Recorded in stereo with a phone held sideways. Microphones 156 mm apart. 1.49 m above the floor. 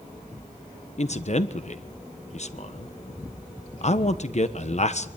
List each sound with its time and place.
1.0 s a man speaking: 50° left (ahead or behind), 1.3 m